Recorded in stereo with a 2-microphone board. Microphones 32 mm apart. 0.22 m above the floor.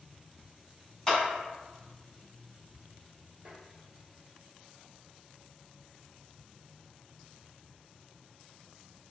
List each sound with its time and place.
1.1 s a clap: 10° left (ahead or behind), 1.5 m
3.5 s tapping: 25° right (ahead or behind), 0.9 m